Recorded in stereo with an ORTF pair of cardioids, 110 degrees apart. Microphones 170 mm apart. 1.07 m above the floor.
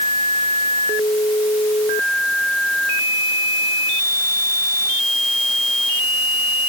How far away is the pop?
I don't hear a pop.